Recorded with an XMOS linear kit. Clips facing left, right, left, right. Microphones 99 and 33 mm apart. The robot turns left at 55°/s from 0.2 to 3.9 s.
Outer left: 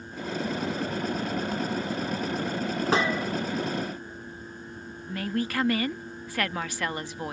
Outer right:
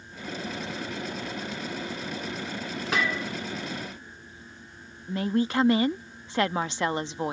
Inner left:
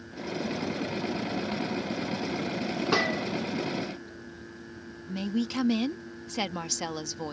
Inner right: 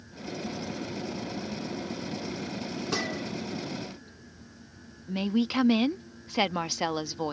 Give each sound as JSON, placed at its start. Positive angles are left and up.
{"t": 2.9, "sound": "a gunshot", "side_deg": 30}
{"t": 5.1, "sound": "a woman speaking", "side_deg": -20}